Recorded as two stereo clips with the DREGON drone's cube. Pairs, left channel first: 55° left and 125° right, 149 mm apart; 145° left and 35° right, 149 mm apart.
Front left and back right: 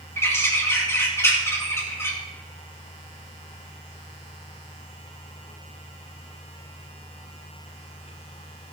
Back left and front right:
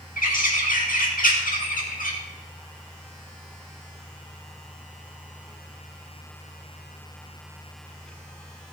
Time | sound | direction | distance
0.2 | a bird | 130° left | 2 m